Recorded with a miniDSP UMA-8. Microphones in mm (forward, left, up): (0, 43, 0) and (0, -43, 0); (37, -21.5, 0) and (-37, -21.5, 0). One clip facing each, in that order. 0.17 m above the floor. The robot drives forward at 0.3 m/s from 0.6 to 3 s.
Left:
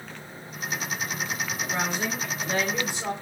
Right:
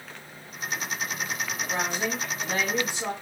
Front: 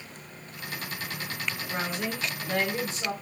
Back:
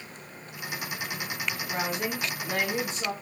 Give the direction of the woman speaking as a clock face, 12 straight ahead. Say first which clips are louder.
Even, back 1 dB; 4 o'clock.